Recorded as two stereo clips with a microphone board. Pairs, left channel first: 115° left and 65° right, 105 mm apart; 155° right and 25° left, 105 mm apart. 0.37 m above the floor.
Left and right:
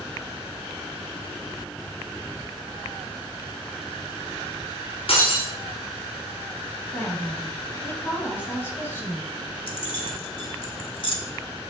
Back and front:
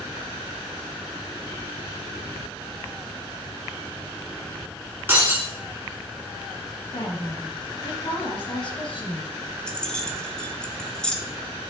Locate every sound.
5.1 s breaking glass: 95° left, 2 m
6.9 s a woman speaking: 175° left, 2.0 m
9.7 s keys jangling: 125° left, 0.9 m